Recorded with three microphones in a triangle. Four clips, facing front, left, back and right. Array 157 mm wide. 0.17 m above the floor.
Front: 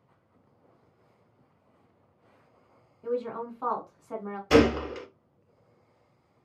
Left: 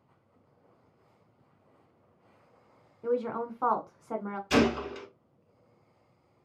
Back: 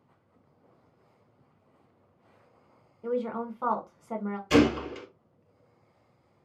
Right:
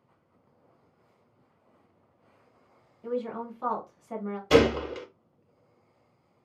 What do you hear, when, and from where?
3.0 s a woman speaking: 100° left, 1.8 m
4.5 s a gunshot: 55° right, 1.4 m